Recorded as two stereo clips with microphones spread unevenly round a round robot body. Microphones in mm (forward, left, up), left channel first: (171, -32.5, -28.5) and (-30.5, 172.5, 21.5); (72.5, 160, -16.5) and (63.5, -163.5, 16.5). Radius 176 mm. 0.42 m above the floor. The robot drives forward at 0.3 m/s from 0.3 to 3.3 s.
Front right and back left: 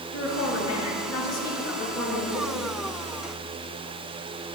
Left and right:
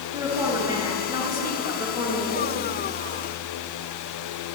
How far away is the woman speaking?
About 7.5 m.